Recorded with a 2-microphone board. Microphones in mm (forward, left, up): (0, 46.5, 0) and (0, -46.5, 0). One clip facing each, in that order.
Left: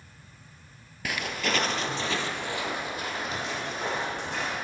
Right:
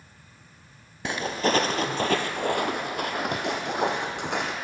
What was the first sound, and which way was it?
Footsteps, 30° right (ahead or behind).